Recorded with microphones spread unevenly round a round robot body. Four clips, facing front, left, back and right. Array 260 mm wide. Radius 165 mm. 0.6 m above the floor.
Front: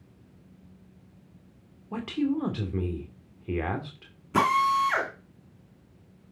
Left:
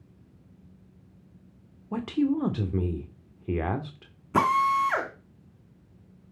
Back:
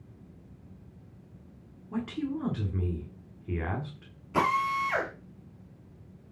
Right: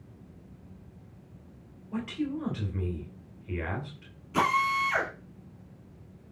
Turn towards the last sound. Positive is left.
turn(degrees=60)